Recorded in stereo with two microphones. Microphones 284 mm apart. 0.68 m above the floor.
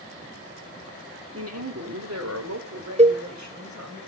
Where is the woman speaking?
55° right (ahead or behind), 1.7 m; by 4.0 s 80° right, 4.5 m.